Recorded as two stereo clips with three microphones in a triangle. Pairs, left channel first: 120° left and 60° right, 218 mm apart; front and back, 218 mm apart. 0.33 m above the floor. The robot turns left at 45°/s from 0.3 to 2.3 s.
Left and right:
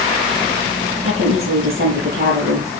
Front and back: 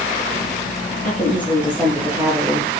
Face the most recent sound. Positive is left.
turn(degrees=-110)